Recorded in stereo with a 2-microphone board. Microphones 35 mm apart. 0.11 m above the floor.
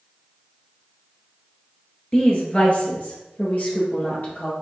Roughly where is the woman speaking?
Left.